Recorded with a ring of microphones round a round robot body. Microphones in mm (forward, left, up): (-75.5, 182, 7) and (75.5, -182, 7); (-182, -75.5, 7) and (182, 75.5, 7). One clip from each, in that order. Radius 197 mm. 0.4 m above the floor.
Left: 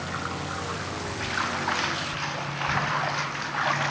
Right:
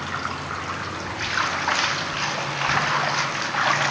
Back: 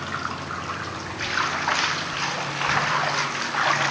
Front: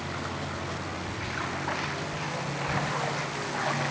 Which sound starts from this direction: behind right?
Running water, at 0.0 s.